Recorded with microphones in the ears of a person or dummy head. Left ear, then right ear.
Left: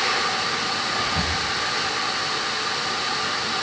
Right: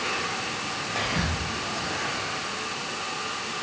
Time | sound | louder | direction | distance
0.9 | whispering | left 4 dB | 75° right (ahead or behind) | 1.2 m